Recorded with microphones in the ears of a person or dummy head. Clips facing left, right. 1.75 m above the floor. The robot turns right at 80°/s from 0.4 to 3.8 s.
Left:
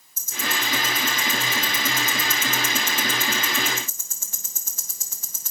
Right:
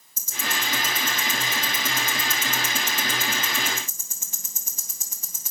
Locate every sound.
0.2 s ticking: 70° right (ahead or behind), 2 m; by 5.5 s 20° right (ahead or behind), 2 m